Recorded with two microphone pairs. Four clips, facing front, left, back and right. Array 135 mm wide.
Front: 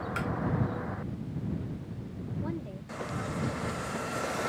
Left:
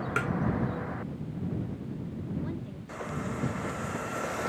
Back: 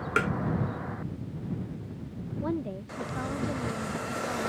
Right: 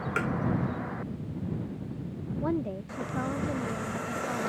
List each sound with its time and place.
0.2 s tapping: 175° right
2.4 s a woman speaking: 115° right